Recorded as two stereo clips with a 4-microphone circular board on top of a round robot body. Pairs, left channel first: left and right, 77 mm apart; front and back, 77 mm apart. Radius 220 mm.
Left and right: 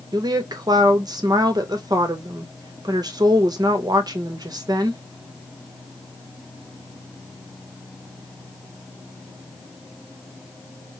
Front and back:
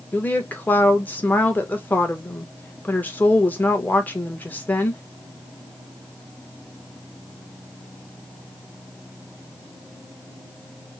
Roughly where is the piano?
No piano in this recording.